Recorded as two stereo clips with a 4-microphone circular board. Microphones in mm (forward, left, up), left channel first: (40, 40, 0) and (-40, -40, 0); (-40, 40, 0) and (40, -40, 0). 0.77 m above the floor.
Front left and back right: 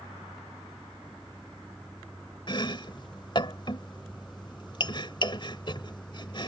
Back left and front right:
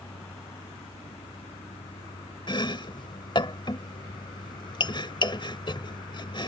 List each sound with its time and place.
0.0 s a vehicle: 135° left; by 6.5 s 120° left
2.5 s chopping: 90° left